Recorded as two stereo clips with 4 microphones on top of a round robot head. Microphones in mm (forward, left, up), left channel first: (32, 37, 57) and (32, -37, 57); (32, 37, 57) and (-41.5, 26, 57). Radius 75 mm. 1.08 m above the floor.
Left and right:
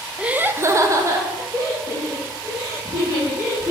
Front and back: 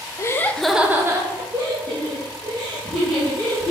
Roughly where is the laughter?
Ahead.